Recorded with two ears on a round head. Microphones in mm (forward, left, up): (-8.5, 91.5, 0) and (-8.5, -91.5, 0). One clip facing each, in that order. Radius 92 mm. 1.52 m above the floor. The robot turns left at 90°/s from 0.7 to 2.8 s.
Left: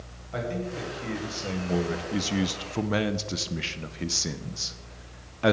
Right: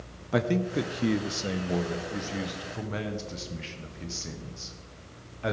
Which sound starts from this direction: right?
A man speaking, at 0.3 s.